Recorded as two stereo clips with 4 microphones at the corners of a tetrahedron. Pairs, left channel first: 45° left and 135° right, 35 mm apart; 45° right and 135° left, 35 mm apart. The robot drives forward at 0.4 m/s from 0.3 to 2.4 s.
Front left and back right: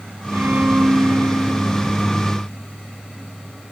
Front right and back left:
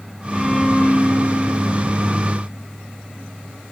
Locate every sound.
0.3 s a violin: 120° right, 5 m; by 2.0 s 130° right, 5 m